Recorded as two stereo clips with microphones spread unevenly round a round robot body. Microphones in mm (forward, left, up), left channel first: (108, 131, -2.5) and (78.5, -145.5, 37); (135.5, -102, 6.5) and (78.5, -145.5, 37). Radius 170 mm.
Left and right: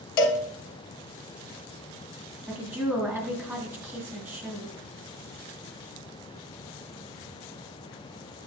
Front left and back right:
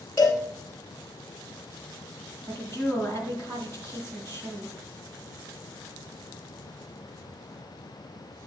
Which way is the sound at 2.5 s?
175° left.